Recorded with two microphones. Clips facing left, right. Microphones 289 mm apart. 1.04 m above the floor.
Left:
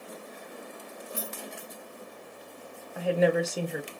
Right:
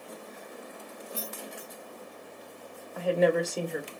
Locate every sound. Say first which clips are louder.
1.1 s keys jangling: left 1 dB; 20° left (ahead or behind), 1.2 m
3.0 s a woman speaking: even; centre (ahead or behind), 0.8 m